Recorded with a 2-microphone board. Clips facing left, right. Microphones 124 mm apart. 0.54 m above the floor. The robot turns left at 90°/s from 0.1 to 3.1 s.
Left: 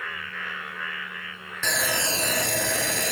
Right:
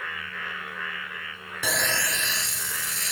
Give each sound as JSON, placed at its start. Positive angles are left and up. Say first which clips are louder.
{"t": 1.6, "sound": "sawing", "louder": "left 1 dB", "azimuth_deg": -170}